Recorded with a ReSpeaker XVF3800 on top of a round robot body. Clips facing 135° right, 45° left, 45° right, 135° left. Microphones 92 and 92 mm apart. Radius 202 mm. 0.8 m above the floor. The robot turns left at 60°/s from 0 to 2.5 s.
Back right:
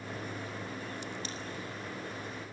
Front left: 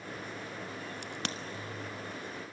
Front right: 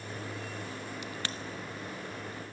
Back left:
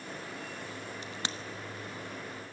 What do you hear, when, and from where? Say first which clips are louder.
1.0 s a crack: front left 1 dB, front right 1 dB; 80° left, 1.4 m; by 1.4 s 60° left, 1.4 m